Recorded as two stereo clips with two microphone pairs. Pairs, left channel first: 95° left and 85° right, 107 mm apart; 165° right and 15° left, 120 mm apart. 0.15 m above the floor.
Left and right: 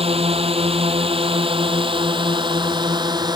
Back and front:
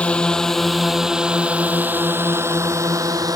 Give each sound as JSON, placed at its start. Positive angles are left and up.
{"t": 0.0, "sound": "a drone", "azimuth_deg": -85}